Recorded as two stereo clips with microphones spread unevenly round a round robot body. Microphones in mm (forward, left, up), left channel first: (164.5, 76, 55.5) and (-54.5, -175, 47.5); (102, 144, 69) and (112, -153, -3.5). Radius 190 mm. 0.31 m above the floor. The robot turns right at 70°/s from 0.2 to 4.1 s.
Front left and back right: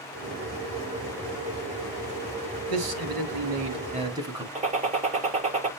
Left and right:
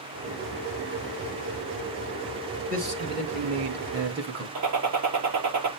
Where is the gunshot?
60° right, 4.5 m.